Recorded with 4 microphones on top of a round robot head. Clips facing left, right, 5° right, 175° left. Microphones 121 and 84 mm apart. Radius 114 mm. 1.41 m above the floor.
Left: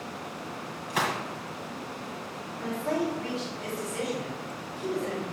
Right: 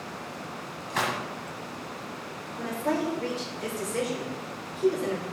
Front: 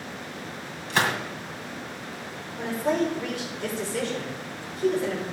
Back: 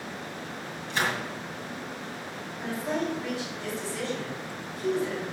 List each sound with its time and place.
0.9 s a gunshot: 10° left, 1.9 m
2.6 s a woman speaking: 40° right, 4.5 m